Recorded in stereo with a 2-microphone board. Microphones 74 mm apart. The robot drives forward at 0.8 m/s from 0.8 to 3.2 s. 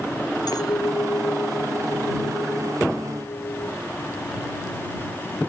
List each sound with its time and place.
0.5 s a clink: 65° left (ahead or behind)